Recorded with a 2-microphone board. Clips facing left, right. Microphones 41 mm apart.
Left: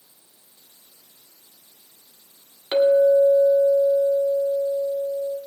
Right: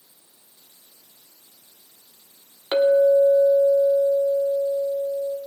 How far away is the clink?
About 1.4 m.